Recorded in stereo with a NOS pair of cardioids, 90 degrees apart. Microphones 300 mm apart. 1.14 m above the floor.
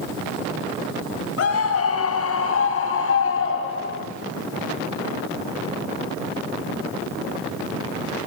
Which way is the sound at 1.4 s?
50° left.